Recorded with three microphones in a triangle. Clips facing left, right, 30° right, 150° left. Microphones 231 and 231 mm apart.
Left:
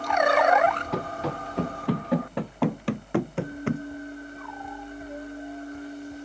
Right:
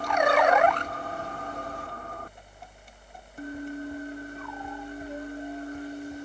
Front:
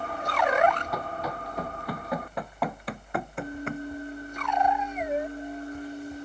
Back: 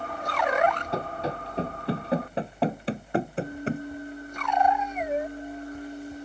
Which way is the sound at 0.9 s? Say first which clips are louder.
Left 7 dB, back 3 dB; 85° left.